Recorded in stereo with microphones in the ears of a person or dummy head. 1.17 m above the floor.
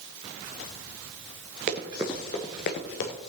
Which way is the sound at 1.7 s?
30° right (ahead or behind).